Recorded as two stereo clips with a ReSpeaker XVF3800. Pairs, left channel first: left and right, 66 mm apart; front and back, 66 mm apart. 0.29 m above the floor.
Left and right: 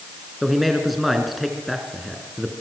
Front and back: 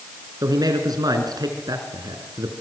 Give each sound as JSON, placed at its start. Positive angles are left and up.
{"t": 0.4, "sound": "a man speaking", "azimuth_deg": 180, "distance_m": 4.0}